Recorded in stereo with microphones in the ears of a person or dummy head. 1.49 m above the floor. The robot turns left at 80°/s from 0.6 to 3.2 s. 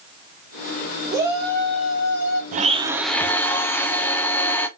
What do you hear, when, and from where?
1.1 s a shout: 160° right, 2 m; by 2.4 s 95° left, 2 m
2.5 s a blender: 135° right, 0.7 m; by 4.7 s 170° left, 0.7 m